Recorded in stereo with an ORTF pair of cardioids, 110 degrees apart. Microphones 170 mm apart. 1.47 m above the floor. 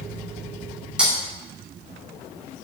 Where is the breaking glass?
5° right, 2.5 m.